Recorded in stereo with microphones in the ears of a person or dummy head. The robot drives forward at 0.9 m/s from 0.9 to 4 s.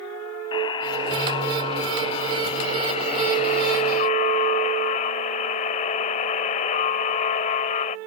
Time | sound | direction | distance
0.5 | a buzzer | 25° left (ahead or behind) | ?